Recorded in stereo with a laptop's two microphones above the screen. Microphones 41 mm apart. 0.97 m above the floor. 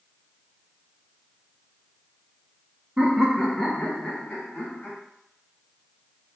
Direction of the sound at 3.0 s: 25° right (ahead or behind).